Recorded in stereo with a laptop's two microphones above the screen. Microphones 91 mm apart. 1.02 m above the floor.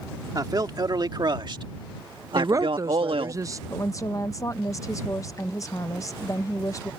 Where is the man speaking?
45° right (ahead or behind); by 3.4 s 75° right (ahead or behind).